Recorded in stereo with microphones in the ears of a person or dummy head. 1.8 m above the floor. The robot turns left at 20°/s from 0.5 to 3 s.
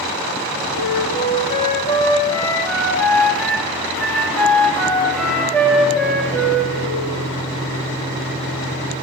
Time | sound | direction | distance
0.7 | a flute | 50° left | 3 m